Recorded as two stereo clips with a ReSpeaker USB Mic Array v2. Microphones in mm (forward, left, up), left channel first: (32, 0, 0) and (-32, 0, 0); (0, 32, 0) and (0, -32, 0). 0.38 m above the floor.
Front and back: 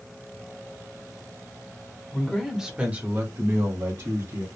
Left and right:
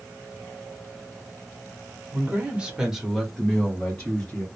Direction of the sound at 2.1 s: 65° right.